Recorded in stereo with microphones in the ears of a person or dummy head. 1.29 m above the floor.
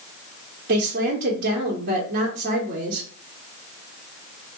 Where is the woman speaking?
50° right (ahead or behind), 0.9 m.